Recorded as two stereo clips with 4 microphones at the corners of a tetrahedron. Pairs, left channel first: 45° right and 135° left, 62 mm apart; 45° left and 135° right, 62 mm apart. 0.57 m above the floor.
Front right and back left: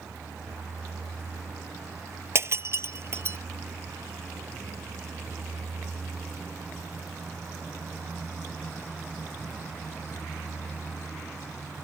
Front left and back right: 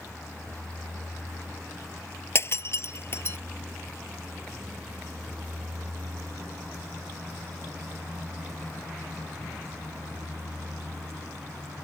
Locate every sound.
0.0 s a vehicle: 115° left; by 11.8 s 145° right
2.4 s breaking glass: 90° left